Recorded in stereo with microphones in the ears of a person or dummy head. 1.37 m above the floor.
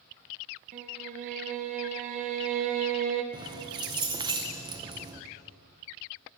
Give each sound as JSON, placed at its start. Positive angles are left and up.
{"t": 0.7, "sound": "a violin", "side_deg": -40, "distance_m": 0.6}
{"t": 3.3, "sound": "keys jangling", "side_deg": -20, "distance_m": 0.7}